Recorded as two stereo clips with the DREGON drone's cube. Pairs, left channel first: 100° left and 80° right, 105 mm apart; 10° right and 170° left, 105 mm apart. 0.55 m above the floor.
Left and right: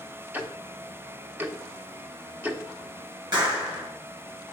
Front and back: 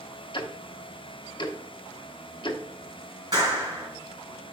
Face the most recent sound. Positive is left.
turn(degrees=-135)